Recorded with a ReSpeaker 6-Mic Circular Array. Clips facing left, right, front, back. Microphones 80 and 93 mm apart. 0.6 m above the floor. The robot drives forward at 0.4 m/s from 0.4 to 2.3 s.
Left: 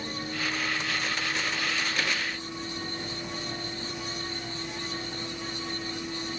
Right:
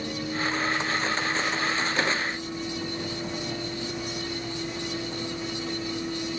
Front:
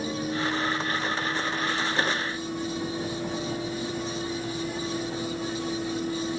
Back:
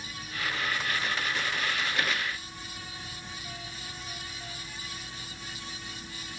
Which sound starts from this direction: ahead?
A vehicle, at 0.0 s.